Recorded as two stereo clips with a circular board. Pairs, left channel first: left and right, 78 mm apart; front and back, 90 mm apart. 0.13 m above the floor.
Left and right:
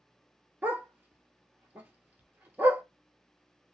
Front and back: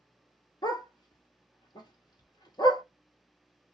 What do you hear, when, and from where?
0.6 s a dog barking: 30° right, 1.0 m